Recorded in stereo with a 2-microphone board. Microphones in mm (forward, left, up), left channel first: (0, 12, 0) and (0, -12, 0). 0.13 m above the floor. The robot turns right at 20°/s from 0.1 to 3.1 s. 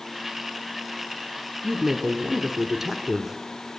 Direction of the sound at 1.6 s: 20° right (ahead or behind).